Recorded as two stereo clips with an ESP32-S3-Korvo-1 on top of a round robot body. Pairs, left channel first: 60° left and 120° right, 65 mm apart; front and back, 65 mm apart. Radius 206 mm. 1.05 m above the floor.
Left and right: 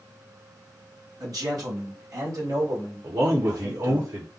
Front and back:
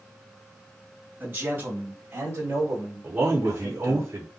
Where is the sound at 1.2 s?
125° right, 2.5 m; by 4.0 s 155° right, 3 m.